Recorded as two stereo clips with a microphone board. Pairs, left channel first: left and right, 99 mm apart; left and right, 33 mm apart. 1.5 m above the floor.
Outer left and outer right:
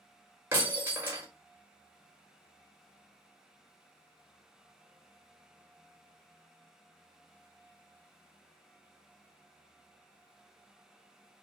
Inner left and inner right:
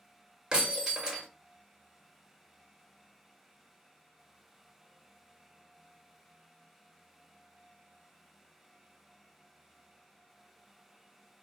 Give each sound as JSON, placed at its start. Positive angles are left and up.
{"t": 0.5, "sound": "breaking glass", "side_deg": -20, "distance_m": 1.2}